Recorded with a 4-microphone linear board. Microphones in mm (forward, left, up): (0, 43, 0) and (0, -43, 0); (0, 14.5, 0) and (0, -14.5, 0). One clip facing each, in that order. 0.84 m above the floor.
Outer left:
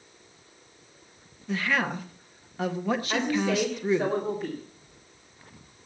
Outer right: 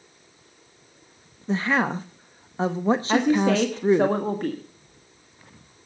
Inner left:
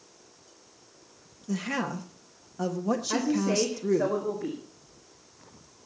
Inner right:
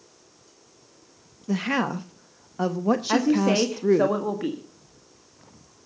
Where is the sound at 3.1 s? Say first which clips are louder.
Outer right 7 dB, inner right 6 dB; 60° right (ahead or behind), 1.5 m.